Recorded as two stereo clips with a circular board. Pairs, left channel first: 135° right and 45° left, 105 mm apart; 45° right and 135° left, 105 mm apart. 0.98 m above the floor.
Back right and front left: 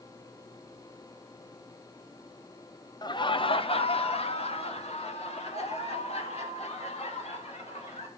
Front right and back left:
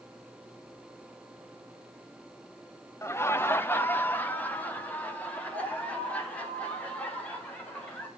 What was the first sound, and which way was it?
Laughter, 100° right.